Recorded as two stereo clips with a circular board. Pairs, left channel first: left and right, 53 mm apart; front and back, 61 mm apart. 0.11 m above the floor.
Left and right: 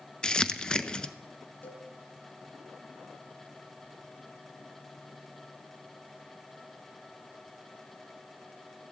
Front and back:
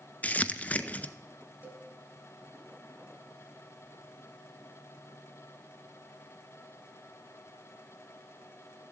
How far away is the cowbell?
About 2 m.